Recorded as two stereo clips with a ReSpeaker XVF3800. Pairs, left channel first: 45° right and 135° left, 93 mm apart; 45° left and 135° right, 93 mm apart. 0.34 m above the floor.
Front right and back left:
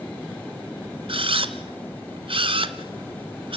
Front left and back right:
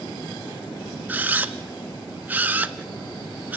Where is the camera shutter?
155° left, 1.0 m.